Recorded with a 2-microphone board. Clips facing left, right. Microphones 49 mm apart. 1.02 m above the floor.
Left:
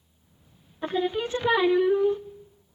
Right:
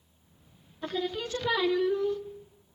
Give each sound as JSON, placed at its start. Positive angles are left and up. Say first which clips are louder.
{"t": 0.8, "sound": "singing", "louder": "left 6 dB", "side_deg": 30, "distance_m": 0.6}